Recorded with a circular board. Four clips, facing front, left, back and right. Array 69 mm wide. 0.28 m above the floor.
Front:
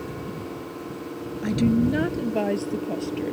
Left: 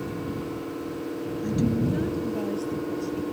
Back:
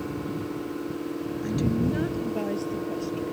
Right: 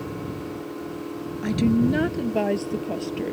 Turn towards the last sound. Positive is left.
turn(degrees=-60)